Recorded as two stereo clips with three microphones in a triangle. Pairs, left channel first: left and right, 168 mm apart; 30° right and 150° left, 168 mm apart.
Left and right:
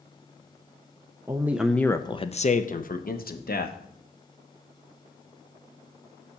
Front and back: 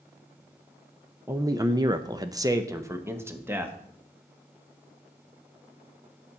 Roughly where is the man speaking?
Behind right.